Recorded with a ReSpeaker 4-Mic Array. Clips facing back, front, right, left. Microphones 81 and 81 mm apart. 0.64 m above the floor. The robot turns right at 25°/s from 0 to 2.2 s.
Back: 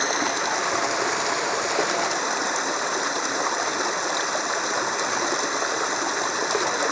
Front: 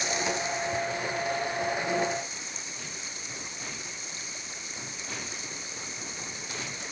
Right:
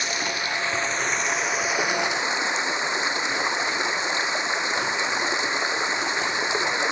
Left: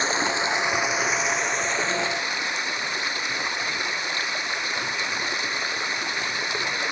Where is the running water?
145° left; by 6.9 s 160° right.